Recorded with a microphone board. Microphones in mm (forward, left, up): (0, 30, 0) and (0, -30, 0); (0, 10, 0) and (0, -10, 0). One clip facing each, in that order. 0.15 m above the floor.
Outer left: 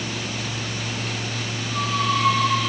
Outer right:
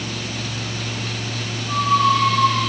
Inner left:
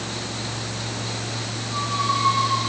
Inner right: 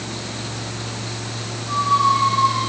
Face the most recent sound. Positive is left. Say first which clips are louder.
# outer right 7 dB, inner right 7 dB
turn(degrees=-65)  # may be behind; listen again after turning